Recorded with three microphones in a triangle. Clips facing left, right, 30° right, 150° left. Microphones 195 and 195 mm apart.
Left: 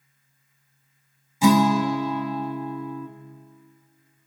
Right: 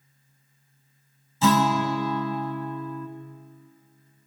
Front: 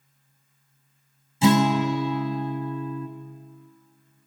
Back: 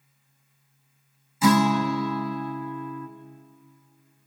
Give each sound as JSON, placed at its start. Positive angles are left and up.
{"t": 1.4, "sound": "a guitar", "azimuth_deg": 20, "distance_m": 1.2}